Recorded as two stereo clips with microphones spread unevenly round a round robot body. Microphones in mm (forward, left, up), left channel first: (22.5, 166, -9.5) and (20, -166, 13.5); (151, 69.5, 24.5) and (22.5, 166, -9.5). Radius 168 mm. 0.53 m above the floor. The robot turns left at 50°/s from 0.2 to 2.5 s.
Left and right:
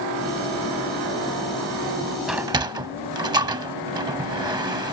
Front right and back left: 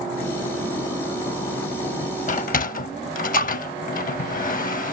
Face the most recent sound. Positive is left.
turn(degrees=-15)